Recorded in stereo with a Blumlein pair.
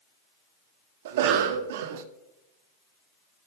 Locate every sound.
1.1 s a cough: 55° right, 0.7 m